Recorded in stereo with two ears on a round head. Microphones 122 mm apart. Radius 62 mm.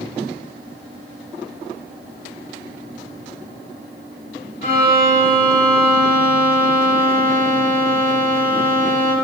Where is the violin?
50° left (ahead or behind), 3 m.